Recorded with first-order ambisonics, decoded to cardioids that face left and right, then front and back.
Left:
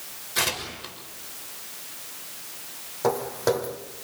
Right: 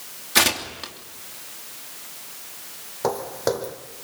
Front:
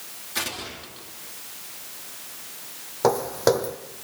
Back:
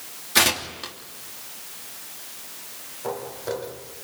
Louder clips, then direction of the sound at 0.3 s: Right 7 dB, back 10 dB; 125° right.